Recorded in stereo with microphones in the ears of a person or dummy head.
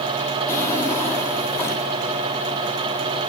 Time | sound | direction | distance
0.5 | a drawer | 15° left (ahead or behind) | 1.7 m